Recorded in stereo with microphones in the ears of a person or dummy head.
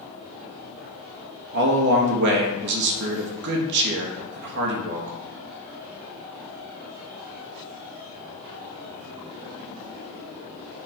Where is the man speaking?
60° right (ahead or behind), 1.3 m.